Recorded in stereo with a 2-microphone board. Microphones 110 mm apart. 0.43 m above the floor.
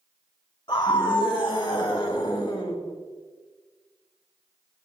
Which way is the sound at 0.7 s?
45° left (ahead or behind).